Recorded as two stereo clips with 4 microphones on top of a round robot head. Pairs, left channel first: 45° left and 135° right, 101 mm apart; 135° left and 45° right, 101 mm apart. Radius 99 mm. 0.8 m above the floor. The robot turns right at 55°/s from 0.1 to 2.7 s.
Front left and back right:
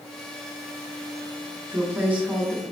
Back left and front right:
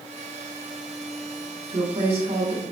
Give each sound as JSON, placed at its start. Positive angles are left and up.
{"t": 1.7, "sound": "a woman speaking", "azimuth_deg": -80, "distance_m": 4.0}